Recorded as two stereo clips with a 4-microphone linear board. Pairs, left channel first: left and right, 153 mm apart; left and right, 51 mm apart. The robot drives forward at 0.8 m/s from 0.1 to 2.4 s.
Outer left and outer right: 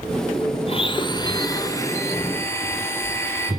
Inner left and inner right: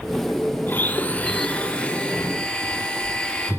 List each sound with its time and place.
0.7 s a blender: 40° left (ahead or behind), 0.9 m; by 3.5 s 15° left (ahead or behind), 2 m